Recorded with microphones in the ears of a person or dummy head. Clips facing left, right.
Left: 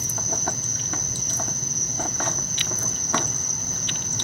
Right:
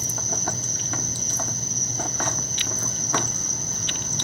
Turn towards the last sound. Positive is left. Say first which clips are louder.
# left 1 dB
turn(degrees=-55)  # may be behind; listen again after turning